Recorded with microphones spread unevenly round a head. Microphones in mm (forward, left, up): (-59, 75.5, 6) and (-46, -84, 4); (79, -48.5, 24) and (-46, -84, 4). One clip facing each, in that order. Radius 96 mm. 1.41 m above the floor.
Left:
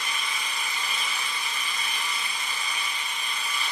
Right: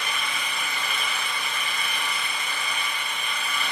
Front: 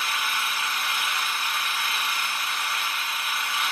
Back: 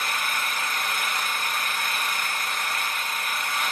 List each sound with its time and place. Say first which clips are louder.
0.0 s an engine running: right 3 dB, even; 120° right, 5 m